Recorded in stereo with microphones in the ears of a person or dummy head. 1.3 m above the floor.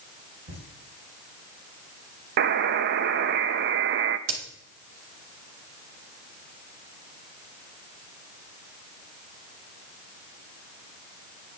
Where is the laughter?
45° right (ahead or behind), 5 m.